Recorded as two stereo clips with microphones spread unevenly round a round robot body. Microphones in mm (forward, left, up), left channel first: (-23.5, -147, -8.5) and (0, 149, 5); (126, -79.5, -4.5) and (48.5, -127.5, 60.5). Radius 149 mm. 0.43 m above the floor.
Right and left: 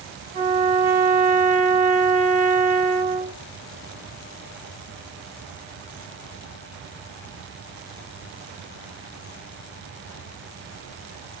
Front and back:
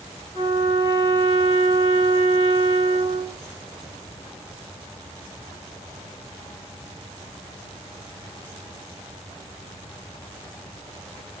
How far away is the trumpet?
About 1.0 m.